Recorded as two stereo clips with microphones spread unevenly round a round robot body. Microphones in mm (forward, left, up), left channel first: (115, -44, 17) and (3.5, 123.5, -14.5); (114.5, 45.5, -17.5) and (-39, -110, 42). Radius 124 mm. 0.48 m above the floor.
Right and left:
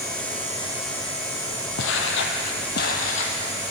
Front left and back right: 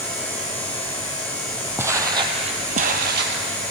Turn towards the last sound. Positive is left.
turn(degrees=-115)